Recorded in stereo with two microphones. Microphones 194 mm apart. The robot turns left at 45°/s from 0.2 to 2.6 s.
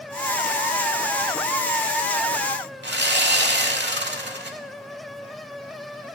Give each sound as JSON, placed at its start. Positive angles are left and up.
{"t": 2.8, "sound": "sawing", "side_deg": -65, "distance_m": 1.0}